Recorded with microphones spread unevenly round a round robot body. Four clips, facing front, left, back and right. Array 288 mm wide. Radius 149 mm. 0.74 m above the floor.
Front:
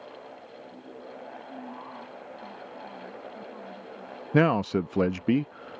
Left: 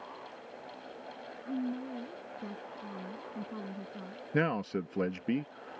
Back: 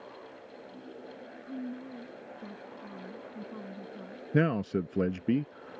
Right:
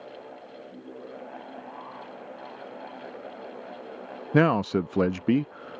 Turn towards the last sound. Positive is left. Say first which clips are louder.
# right 9 dB, front 5 dB
turn(degrees=-55)